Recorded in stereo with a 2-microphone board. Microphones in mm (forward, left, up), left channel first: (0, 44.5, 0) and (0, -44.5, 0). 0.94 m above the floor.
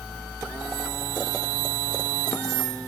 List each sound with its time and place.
Only background noise.